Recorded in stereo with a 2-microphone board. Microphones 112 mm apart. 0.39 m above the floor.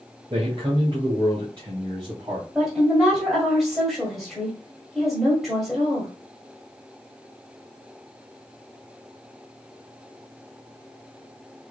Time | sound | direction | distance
0.3 | a man speaking | 45° right (ahead or behind) | 2.5 m
2.5 | a woman speaking | centre (ahead or behind) | 1.7 m